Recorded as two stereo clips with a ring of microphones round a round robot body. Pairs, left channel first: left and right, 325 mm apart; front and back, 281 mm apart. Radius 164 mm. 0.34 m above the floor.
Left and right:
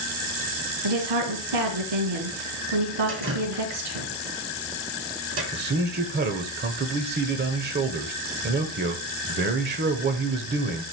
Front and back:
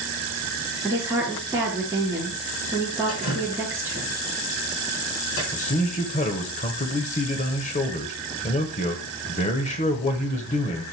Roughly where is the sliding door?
No sliding door in this recording.